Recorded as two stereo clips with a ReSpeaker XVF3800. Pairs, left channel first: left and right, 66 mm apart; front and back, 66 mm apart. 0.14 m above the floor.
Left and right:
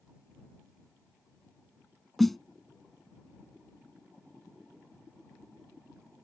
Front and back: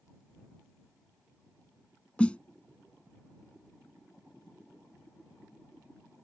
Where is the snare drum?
10° left.